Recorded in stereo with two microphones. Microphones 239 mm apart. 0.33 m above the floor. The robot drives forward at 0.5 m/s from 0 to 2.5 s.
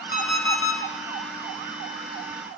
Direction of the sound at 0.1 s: 45° left (ahead or behind).